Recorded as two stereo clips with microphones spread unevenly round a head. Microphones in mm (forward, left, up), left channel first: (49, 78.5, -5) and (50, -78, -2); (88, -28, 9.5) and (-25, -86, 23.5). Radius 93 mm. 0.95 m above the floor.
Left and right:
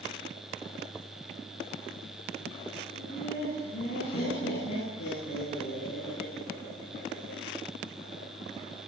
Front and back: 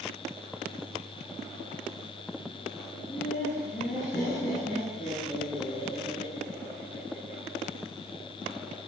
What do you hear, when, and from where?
3.0 s laughter: 75° left, 9.5 m; by 7.4 s 80° left, 15.5 m